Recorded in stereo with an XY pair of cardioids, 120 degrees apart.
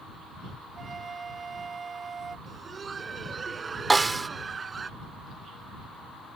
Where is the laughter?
30° right.